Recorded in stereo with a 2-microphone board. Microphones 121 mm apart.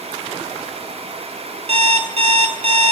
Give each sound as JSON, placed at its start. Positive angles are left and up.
{"t": 1.7, "sound": "an alarm clock", "side_deg": -60, "distance_m": 0.9}